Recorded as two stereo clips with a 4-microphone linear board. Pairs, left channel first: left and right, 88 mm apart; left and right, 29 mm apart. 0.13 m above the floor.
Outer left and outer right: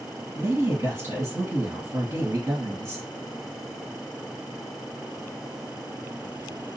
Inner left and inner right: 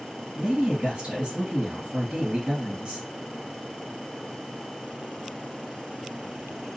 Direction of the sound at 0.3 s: 35° right (ahead or behind).